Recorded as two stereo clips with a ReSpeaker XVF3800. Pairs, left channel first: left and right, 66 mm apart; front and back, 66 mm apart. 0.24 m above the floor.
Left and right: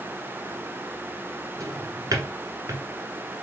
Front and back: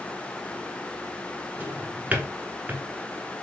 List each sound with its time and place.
1.6 s a drawer: 110° right, 1.2 m